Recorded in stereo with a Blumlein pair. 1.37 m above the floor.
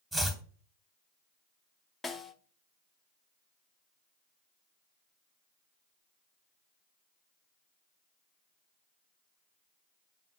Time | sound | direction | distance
0.1 | chopping | 5° right | 0.9 m
2.0 | a snare drum | 15° left | 0.5 m